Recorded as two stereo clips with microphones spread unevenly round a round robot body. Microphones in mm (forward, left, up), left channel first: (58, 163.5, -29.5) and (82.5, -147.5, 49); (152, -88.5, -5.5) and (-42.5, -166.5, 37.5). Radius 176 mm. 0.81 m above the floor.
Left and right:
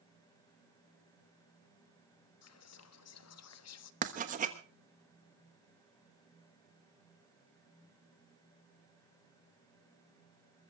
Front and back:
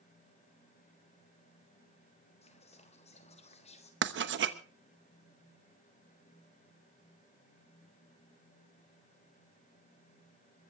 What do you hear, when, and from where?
2.4 s whispering: 80° left, 1.1 m
4.0 s writing: 160° right, 1.1 m